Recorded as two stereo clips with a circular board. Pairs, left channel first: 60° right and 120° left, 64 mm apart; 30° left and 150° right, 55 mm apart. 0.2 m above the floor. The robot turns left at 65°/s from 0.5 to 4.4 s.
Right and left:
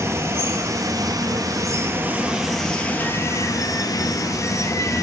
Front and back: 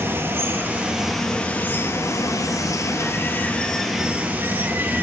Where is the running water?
160° left, 0.9 m; by 5.0 s 95° right, 0.9 m.